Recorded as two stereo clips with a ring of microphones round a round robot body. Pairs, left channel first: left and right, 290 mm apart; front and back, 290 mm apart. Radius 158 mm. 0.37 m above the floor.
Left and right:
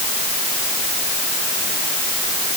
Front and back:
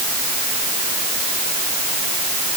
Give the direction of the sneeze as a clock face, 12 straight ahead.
I don't hear a sneeze.